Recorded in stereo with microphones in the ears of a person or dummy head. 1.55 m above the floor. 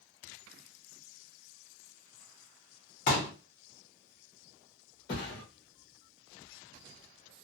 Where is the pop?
30° left (ahead or behind), 0.7 m.